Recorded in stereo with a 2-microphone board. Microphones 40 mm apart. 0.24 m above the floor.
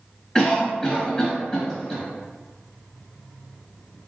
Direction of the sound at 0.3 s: 15° left (ahead or behind).